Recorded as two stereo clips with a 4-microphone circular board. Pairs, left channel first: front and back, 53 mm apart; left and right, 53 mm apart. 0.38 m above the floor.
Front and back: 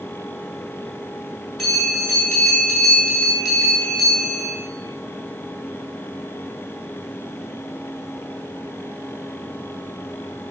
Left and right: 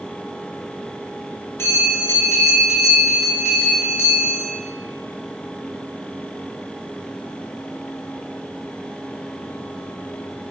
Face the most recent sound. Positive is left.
turn(degrees=80)